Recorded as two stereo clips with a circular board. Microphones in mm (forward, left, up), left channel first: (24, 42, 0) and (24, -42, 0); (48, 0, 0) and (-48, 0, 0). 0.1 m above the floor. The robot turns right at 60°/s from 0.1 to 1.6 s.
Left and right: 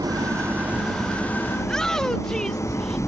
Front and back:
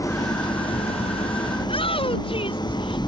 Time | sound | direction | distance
0.0 | an engine running | 55° right | ?
1.6 | a shout | 5° left | ?